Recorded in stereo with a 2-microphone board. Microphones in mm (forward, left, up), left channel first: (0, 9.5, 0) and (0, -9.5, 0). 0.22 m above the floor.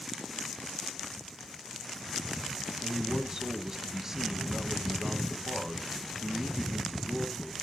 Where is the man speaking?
30° right (ahead or behind), 1.3 m.